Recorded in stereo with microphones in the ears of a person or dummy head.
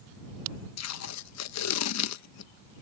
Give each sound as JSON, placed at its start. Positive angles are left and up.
{"t": 0.8, "sound": "tape being pulled", "side_deg": 80}